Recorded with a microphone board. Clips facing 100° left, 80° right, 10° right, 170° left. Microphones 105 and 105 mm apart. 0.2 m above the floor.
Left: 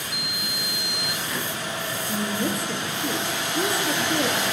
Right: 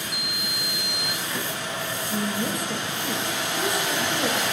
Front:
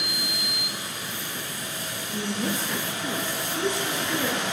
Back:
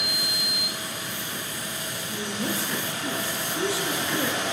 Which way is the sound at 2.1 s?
90° left.